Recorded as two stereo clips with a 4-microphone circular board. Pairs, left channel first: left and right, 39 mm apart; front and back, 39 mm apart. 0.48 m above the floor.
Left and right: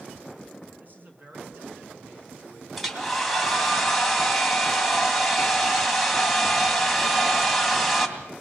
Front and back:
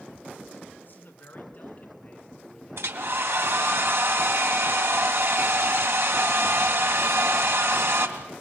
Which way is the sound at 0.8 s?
40° right.